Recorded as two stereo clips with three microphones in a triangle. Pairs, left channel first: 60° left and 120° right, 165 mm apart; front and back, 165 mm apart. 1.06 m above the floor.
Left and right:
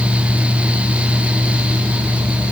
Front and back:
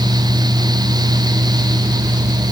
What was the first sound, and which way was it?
Only background noise.